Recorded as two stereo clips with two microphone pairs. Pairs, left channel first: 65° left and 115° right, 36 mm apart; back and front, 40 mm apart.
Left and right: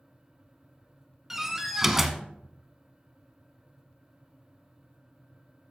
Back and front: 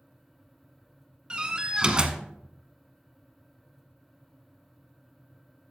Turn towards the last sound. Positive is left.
turn(degrees=-40)